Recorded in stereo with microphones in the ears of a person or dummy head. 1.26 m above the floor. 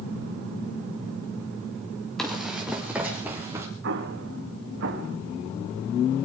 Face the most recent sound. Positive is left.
turn(degrees=-65)  # may be behind; listen again after turning